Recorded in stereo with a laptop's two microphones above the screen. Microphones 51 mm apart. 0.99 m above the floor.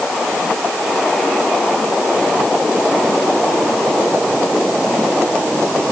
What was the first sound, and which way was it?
Only background noise.